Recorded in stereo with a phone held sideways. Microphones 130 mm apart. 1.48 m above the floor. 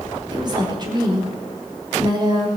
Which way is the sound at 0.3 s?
35° right (ahead or behind).